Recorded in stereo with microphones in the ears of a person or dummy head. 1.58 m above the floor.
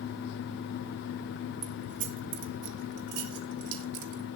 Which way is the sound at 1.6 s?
25° right (ahead or behind).